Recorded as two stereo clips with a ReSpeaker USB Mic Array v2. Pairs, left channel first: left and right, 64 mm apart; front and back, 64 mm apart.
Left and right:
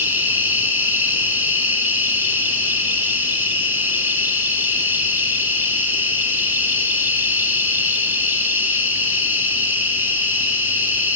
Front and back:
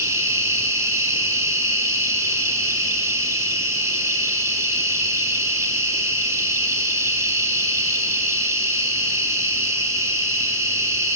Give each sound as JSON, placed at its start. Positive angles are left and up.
{"t": 0.0, "sound": "an insect", "azimuth_deg": -145, "distance_m": 2.5}